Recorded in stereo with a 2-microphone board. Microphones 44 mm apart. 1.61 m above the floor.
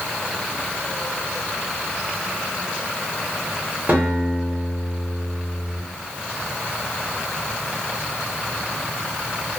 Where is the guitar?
40° right (ahead or behind), 1.5 m.